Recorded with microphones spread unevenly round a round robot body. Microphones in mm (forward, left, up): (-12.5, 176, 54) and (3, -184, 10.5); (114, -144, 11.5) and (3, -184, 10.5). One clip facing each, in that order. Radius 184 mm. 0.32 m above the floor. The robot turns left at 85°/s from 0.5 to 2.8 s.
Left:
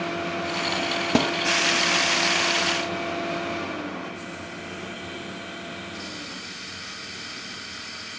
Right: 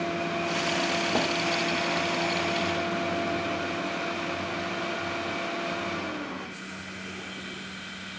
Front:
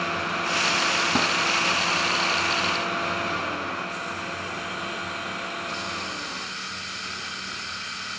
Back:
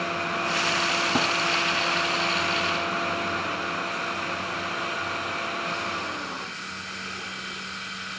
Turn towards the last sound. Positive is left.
turn(degrees=-30)